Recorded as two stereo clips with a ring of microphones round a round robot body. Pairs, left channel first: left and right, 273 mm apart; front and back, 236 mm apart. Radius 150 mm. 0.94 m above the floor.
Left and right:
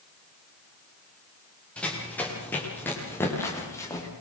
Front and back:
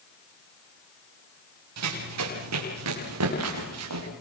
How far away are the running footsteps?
About 9.5 m.